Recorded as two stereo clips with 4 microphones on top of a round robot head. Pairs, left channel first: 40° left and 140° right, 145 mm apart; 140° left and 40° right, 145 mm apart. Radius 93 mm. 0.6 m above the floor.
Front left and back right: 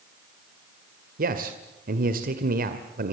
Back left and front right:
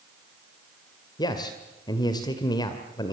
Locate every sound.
1.2 s a man speaking: 160° right, 2.0 m